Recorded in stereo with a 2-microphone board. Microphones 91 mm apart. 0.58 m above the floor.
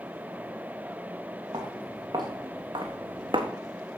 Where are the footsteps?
55° right (ahead or behind), 4 m; by 3.5 s 70° right (ahead or behind), 1.4 m.